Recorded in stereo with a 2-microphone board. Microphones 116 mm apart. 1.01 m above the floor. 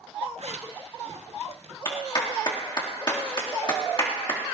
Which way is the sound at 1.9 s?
45° left (ahead or behind).